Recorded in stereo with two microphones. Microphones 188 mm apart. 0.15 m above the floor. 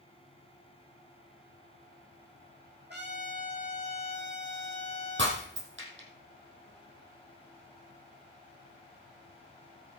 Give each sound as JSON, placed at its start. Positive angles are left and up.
{"t": 2.9, "sound": "a trumpet", "side_deg": -60, "distance_m": 4.0}
{"t": 5.2, "sound": "breaking glass", "side_deg": -75, "distance_m": 3.0}